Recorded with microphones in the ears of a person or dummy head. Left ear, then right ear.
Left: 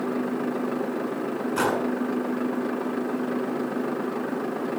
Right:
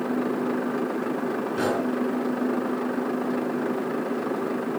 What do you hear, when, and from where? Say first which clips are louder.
1.6 s a gunshot: left 2 dB; 45° left (ahead or behind), 5 m